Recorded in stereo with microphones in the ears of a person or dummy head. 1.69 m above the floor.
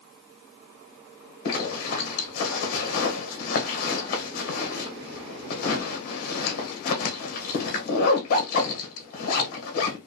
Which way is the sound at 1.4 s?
45° left (ahead or behind).